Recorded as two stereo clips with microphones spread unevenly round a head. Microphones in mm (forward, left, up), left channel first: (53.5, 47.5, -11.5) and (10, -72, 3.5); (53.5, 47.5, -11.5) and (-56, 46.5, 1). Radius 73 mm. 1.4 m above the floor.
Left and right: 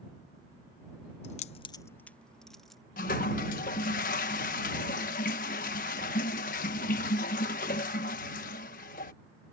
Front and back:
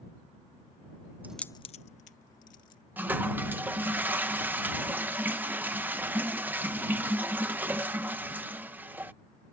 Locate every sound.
1.2 s keys jangling: 110° left; by 2.8 s 20° right
3.0 s a toilet flushing: 110° left